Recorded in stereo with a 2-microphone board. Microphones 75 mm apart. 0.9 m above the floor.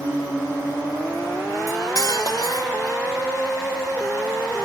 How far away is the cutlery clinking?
About 2 m.